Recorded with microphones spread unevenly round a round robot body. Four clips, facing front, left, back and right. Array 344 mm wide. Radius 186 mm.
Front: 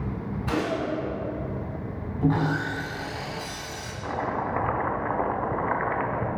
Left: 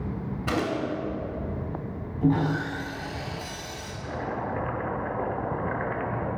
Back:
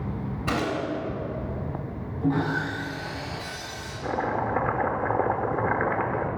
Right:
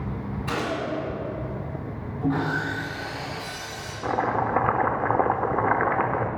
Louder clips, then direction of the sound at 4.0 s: Right 8 dB, back 2 dB; 125° right.